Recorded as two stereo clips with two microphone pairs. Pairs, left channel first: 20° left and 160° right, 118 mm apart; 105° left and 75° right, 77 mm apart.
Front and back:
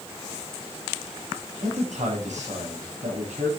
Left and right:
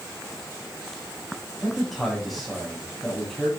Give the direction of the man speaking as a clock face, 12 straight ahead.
5 o'clock.